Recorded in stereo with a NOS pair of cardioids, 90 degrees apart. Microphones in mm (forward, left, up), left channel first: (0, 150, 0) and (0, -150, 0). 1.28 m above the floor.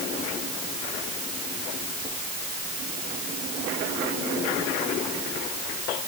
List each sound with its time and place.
Only background noise.